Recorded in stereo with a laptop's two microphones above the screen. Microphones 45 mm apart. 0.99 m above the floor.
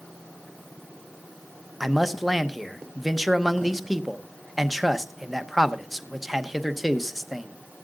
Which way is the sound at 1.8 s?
Centre (ahead or behind).